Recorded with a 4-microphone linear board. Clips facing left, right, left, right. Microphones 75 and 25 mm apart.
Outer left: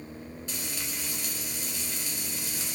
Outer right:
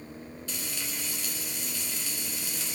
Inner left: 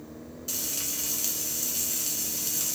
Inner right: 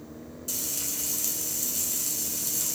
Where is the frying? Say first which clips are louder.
Even, inner left 1 dB; 20° left (ahead or behind), 1.4 m.